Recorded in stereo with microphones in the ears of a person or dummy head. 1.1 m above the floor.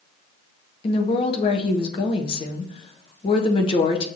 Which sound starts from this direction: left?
A woman speaking, at 0.8 s.